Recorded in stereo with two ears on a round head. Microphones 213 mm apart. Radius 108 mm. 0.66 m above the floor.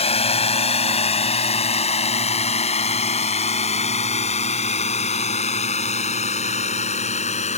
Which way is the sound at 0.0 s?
25° left (ahead or behind).